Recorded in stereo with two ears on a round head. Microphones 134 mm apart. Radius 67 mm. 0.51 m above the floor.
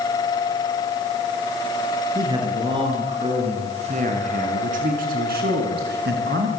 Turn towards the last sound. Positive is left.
turn(degrees=-80)